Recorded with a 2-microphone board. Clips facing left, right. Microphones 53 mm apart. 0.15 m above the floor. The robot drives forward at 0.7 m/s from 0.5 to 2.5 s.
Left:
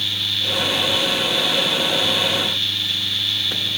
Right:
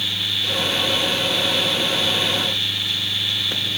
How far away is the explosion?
No explosion in this recording.